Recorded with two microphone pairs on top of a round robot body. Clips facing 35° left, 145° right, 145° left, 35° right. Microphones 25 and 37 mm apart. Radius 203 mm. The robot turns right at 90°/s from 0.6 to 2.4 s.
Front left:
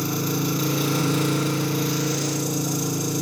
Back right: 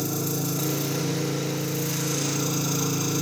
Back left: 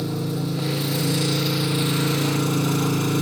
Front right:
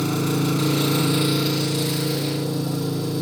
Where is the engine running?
25° right, 3 m; by 3.2 s 135° left, 3 m.